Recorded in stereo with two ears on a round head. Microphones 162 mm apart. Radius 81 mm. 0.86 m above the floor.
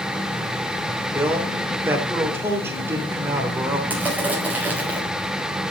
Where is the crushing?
10° right (ahead or behind), 4.5 m.